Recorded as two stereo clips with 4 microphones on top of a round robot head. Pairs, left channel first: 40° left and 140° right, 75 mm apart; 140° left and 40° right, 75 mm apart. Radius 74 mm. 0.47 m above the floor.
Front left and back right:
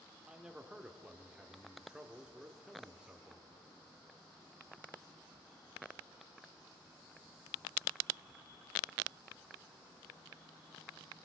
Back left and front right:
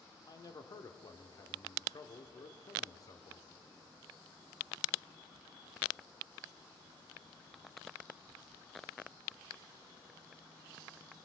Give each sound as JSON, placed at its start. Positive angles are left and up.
{"t": 0.3, "sound": "a man speaking", "azimuth_deg": 145, "distance_m": 1.2}